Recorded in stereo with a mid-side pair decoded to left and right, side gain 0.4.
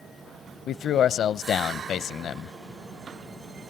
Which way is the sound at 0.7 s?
70° left.